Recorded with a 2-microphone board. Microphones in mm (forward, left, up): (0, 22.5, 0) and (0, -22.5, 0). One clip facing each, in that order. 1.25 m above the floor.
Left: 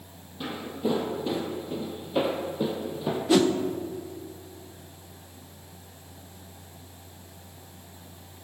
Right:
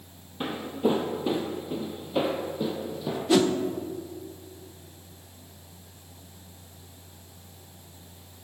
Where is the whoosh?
Centre (ahead or behind), 0.8 m.